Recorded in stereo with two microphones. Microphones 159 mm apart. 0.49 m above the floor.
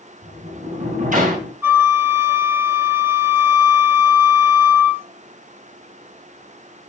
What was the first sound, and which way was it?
A sliding door, 65° right (ahead or behind).